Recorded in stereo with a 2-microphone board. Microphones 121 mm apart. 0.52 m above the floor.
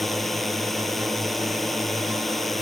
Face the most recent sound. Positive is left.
turn(degrees=0)  # may be behind; listen again after turning